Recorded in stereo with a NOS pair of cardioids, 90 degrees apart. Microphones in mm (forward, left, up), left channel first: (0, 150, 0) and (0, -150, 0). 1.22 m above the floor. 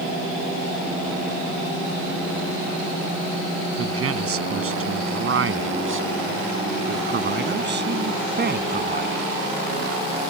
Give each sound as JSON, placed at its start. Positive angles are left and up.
{"t": 3.8, "sound": "a man speaking", "azimuth_deg": -50}